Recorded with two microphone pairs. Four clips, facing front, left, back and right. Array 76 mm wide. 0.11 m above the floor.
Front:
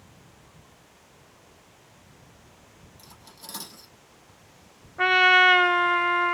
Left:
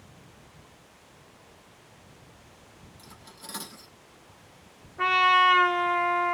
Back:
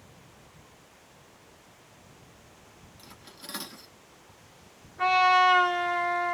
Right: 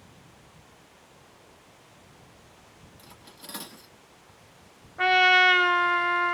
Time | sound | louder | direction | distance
3.0 | cutlery clinking | left 1 dB, back 1 dB | 175° left | 1.1 m
5.0 | a trumpet | right 1 dB, front 3 dB | 15° right | 0.9 m